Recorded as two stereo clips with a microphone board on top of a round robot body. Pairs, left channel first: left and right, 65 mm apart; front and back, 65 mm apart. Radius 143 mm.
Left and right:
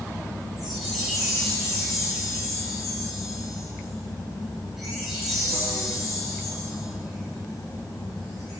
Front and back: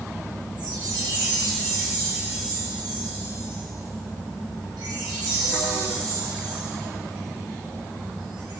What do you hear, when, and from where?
0.6 s a chime: 175° right, 5 m